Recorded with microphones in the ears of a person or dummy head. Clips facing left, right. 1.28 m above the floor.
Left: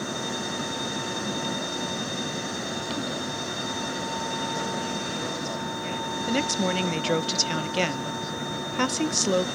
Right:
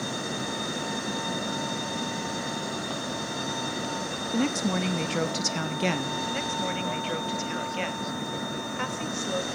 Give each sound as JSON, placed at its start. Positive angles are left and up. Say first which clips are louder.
{"t": 4.3, "sound": "a woman speaking", "louder": "right 5 dB", "side_deg": -80, "distance_m": 2.0}
{"t": 6.3, "sound": "a woman speaking", "louder": "left 5 dB", "side_deg": 55, "distance_m": 1.2}